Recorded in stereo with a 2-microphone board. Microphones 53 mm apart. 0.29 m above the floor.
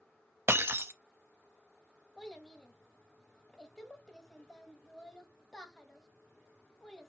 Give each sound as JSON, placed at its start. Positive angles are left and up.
{"t": 0.5, "sound": "breaking glass", "side_deg": -50, "distance_m": 0.5}
{"t": 2.2, "sound": "a child speaking", "side_deg": 10, "distance_m": 1.2}